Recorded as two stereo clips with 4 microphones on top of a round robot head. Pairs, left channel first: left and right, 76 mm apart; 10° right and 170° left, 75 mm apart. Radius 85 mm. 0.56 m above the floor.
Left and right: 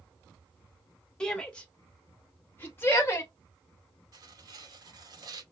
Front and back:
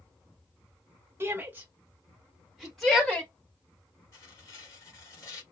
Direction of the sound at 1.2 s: 165° left.